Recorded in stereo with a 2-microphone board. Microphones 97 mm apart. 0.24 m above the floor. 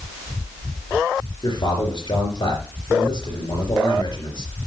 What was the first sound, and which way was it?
A man speaking, 55° left (ahead or behind).